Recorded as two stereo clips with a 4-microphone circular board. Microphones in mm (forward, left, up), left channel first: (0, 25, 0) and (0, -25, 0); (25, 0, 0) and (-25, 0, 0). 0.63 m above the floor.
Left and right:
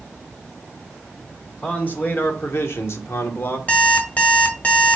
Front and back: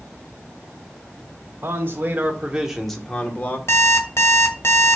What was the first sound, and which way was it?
A man speaking, 145° left.